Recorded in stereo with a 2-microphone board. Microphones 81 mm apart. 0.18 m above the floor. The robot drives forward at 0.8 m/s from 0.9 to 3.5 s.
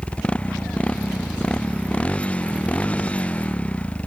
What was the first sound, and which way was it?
A motorcycle, 15° left (ahead or behind).